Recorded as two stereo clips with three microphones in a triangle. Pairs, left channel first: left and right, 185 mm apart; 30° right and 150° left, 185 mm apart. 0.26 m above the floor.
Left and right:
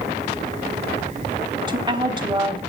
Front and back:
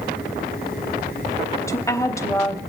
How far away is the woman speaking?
About 0.9 m.